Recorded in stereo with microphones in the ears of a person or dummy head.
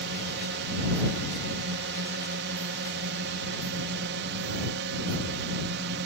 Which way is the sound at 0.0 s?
55° right (ahead or behind).